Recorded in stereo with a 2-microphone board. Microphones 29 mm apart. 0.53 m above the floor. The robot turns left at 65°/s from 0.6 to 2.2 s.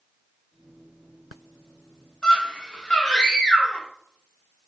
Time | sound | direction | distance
2.2 | a scream | 35° left (ahead or behind) | 1.2 m